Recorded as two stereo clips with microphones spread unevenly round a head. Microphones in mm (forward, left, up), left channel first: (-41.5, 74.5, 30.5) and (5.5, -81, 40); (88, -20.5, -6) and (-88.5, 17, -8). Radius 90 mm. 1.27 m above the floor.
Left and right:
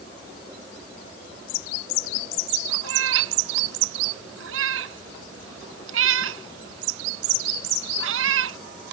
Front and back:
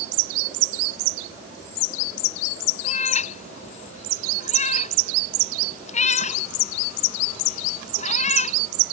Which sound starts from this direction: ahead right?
A cat meowing, at 2.8 s.